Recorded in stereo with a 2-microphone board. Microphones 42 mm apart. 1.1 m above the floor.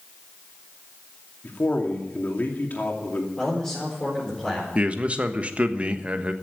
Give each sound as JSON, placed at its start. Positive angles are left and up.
{"t": 1.4, "sound": "a man speaking", "side_deg": 40, "distance_m": 2.5}
{"t": 3.4, "sound": "a man speaking", "side_deg": 15, "distance_m": 4.5}
{"t": 4.8, "sound": "a man speaking", "side_deg": -30, "distance_m": 1.2}